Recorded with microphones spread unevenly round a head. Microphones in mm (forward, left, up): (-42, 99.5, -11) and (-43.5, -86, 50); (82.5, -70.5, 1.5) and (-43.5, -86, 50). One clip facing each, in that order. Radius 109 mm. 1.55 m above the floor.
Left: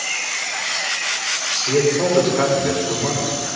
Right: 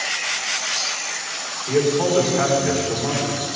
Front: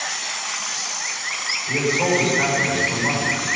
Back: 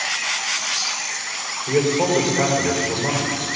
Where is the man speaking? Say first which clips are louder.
Left 1 dB, back 3 dB; 140° left, 5.5 m.